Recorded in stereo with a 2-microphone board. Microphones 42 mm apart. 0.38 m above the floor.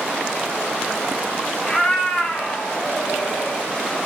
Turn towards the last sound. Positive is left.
turn(degrees=45)  # may be behind; listen again after turning